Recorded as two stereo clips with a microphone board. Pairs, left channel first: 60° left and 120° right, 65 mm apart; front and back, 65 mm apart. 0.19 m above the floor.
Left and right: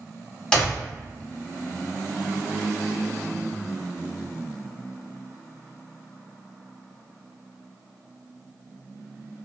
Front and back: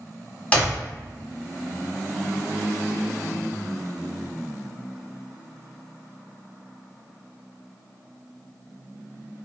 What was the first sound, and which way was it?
A clap, 10° left.